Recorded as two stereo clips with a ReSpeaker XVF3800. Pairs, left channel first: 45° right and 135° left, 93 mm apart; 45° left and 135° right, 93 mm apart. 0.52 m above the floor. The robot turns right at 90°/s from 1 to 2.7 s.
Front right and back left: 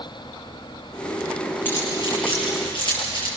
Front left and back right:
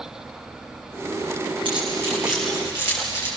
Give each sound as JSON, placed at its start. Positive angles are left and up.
{"t": 1.6, "sound": "keys jangling", "azimuth_deg": -110, "distance_m": 9.0}